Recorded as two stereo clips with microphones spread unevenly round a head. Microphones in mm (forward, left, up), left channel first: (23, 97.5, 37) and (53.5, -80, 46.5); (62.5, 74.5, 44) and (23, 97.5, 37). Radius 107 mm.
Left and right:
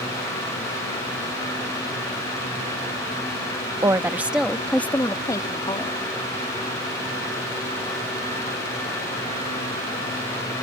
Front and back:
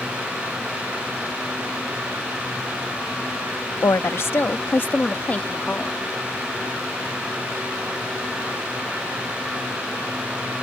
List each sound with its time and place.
3.8 s a woman speaking: 10° right; by 6.0 s 40° left